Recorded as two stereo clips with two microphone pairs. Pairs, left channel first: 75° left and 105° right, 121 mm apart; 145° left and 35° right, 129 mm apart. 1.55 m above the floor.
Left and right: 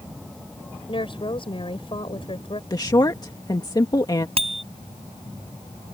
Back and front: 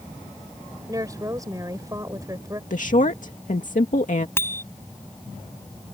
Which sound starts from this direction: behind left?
A woman speaking, at 2.7 s.